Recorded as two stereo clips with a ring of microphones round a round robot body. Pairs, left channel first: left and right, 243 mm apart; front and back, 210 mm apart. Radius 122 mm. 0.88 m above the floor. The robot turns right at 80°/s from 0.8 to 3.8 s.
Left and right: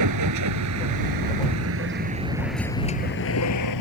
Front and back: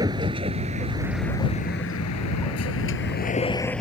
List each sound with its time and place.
0.0 s a vehicle: 105° right; by 3.8 s 85° left